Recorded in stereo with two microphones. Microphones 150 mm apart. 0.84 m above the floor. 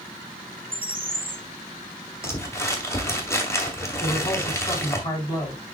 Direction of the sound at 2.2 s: 20° left (ahead or behind).